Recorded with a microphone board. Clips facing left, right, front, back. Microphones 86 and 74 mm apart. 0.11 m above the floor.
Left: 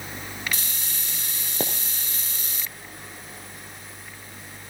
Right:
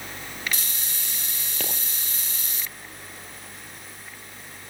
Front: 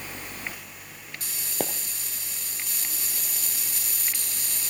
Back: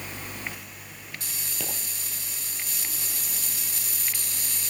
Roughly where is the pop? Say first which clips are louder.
Left 6 dB, front 8 dB; ahead left.